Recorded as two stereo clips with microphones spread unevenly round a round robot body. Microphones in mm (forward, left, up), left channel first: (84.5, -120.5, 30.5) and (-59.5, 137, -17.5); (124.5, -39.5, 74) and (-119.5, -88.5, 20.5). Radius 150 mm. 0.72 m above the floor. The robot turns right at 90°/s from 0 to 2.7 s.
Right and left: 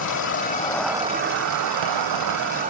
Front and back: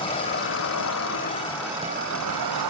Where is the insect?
55° right, 0.8 m; by 2.7 s 170° right, 0.8 m.